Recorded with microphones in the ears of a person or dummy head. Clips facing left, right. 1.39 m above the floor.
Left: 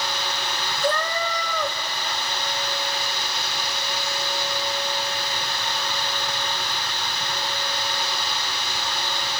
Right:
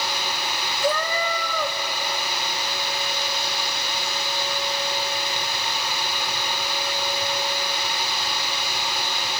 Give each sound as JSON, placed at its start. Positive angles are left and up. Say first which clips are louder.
{"t": 0.8, "sound": "a cat meowing", "louder": "right 1 dB", "side_deg": 0, "distance_m": 1.1}